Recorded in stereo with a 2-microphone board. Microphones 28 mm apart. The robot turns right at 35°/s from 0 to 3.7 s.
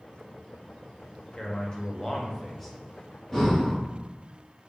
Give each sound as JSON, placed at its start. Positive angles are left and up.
{"t": 1.4, "sound": "a man speaking", "azimuth_deg": 130, "distance_m": 0.5}
{"t": 3.3, "sound": "breathing", "side_deg": 15, "distance_m": 0.7}